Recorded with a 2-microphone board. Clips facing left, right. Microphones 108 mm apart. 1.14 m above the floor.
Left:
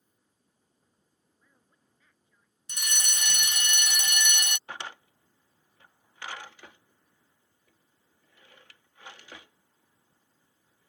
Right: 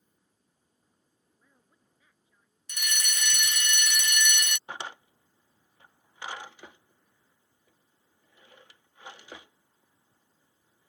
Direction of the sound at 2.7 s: 30° left (ahead or behind).